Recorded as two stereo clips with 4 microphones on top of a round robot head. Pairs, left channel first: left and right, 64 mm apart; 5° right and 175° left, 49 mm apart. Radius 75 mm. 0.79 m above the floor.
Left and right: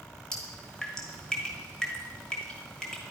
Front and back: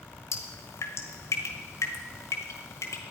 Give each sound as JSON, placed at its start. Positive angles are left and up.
{"t": 0.3, "sound": "dripping", "azimuth_deg": 10, "distance_m": 1.3}